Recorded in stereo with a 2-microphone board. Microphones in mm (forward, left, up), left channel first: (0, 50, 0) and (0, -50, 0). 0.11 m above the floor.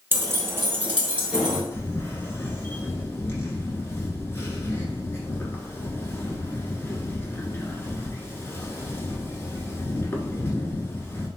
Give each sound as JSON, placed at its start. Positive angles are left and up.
{"t": 0.1, "sound": "keys jangling", "side_deg": -25, "distance_m": 0.9}
{"t": 1.7, "sound": "a camera shutter", "side_deg": 25, "distance_m": 0.6}